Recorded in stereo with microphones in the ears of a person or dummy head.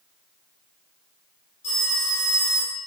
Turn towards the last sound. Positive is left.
turn(degrees=45)  # may be behind; listen again after turning